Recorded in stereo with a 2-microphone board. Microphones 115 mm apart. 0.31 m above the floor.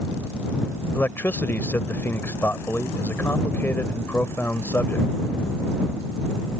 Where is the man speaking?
20° left (ahead or behind).